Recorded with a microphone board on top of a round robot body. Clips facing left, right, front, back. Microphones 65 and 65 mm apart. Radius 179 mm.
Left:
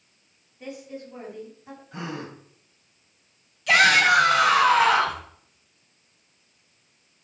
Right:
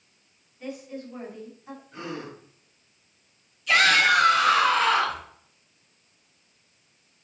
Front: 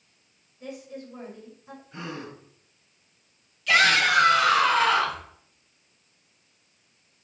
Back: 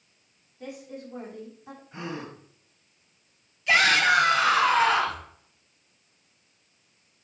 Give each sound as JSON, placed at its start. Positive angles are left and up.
{"t": 0.6, "sound": "a woman speaking", "azimuth_deg": 170, "distance_m": 5.0}
{"t": 1.9, "sound": "a gasp", "azimuth_deg": 110, "distance_m": 3.0}
{"t": 3.7, "sound": "a shout", "azimuth_deg": 115, "distance_m": 4.5}